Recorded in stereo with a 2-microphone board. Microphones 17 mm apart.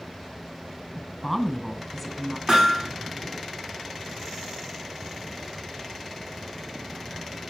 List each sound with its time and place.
1.0 s a woman speaking: 5° left (ahead or behind), 2 m
2.5 s hammering: 40° right (ahead or behind), 9.5 m